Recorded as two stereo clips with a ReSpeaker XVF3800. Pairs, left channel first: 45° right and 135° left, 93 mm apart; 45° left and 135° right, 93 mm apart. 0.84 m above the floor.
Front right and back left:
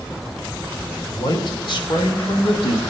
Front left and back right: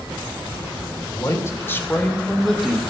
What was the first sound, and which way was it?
A man speaking, 5° right.